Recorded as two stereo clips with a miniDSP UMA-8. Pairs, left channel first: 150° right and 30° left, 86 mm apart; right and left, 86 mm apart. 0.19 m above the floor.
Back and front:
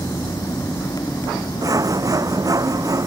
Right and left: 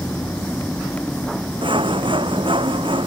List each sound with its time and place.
1.6 s sawing: 75° left